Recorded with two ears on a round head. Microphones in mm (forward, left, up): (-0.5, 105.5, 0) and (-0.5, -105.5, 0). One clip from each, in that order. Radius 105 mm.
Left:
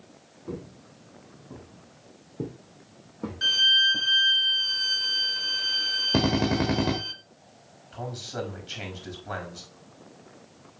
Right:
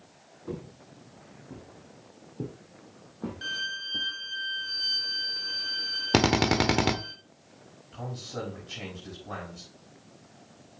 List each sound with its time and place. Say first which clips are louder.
0.5 s footsteps: left 1 dB; 25° right (ahead or behind), 1.9 m; by 4.1 s 35° left (ahead or behind), 3.5 m
3.4 s a violin: left 14 dB; 30° left (ahead or behind), 1.0 m
6.1 s a drill: right 2 dB; 70° right (ahead or behind), 1.1 m
7.9 s a man speaking: left 3 dB; 45° left (ahead or behind), 5 m